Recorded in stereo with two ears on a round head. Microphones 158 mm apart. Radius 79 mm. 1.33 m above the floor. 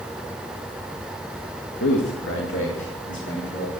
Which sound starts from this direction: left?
A man speaking, at 1.8 s.